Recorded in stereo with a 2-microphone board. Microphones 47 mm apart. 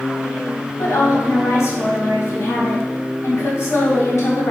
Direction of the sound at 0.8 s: 70° left (ahead or behind).